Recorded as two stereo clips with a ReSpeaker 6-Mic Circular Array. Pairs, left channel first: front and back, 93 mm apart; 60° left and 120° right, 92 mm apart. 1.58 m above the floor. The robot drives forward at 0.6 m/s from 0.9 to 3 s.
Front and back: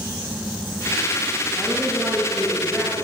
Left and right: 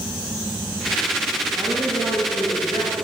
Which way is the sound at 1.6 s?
90° right.